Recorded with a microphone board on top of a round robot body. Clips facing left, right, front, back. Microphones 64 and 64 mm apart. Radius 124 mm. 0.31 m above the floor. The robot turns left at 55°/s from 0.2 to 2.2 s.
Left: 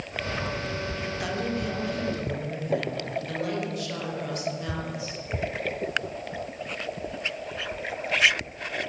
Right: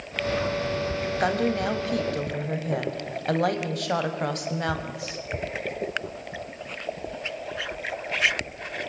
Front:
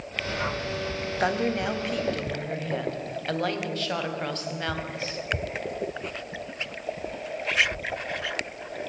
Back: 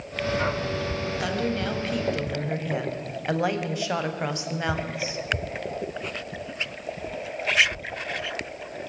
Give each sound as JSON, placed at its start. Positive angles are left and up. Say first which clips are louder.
{"t": 1.2, "sound": "a woman speaking", "louder": "right 6 dB, front 4 dB", "azimuth_deg": -50, "distance_m": 3.0}